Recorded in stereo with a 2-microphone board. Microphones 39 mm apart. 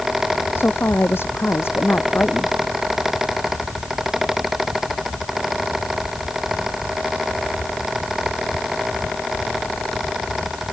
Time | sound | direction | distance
0.6 | a woman speaking | 75° left (ahead or behind) | ?